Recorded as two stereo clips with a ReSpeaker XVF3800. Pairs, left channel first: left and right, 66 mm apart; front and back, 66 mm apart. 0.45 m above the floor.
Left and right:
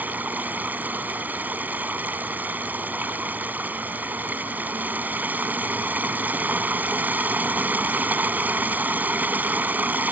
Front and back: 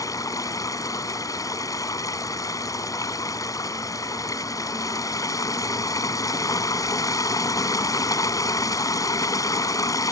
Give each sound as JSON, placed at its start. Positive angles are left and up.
{"t": 0.0, "sound": "running water", "azimuth_deg": -25}